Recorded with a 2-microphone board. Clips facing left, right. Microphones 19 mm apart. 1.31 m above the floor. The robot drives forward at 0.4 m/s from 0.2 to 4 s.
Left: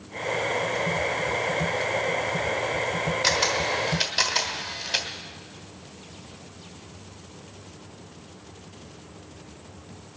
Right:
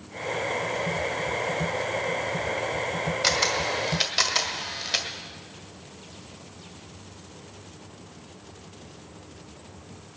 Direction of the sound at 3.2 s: 10° right (ahead or behind).